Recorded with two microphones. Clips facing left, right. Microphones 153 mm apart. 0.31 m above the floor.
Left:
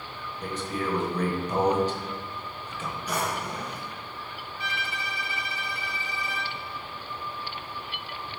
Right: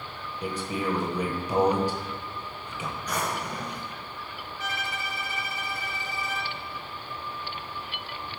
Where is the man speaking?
10° right (ahead or behind), 1.0 m.